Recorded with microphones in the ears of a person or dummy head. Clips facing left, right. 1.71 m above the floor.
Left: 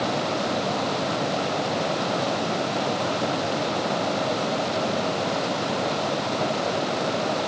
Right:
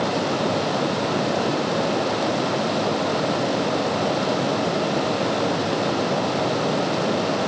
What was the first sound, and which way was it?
Only background noise.